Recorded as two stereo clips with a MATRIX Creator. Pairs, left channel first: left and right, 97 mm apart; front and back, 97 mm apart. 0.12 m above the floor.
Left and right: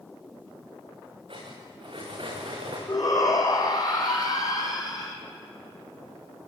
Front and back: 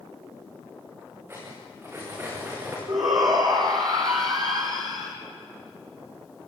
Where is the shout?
140° left, 5 m.